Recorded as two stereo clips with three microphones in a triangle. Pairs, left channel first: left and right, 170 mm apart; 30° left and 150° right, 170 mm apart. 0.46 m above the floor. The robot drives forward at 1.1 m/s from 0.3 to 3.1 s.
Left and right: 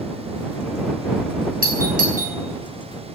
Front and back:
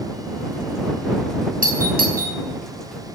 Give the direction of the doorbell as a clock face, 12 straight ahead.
4 o'clock.